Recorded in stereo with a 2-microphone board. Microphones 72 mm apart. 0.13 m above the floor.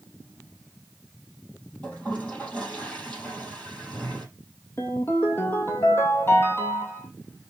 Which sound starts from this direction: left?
A ringtone, at 4.8 s.